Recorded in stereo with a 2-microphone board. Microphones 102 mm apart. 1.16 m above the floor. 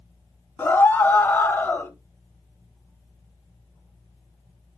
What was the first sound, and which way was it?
A scream, 20° left (ahead or behind).